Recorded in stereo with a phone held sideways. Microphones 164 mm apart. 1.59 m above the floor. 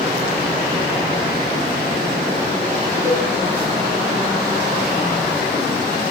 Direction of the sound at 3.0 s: 15° left (ahead or behind).